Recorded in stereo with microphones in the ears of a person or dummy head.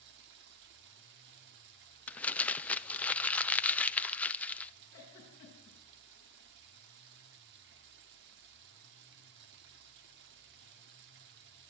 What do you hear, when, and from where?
0.0 s running water: 60° right (ahead or behind), 1.8 m
2.1 s crumpling: 10° left (ahead or behind), 0.6 m
4.9 s a giggle: 20° left (ahead or behind), 7 m